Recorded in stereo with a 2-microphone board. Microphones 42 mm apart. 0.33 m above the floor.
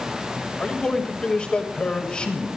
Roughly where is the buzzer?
I don't hear a buzzer.